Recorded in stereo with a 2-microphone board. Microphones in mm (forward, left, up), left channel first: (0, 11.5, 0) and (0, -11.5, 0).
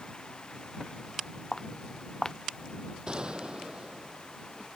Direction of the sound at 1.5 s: 25° left (ahead or behind).